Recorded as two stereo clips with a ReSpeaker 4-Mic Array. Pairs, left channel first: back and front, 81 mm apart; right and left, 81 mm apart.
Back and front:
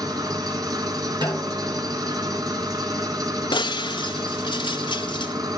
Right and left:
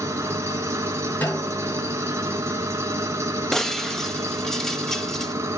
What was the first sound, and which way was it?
An engine running, 35° left.